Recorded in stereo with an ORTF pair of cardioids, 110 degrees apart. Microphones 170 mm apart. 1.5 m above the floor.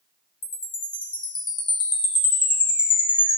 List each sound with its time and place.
0.4 s a chime: 30° left, 1.5 m